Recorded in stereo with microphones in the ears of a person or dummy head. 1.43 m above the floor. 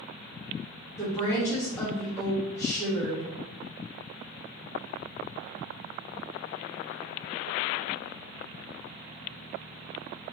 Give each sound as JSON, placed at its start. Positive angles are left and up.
{"t": 1.0, "sound": "a woman speaking", "side_deg": 20, "distance_m": 1.1}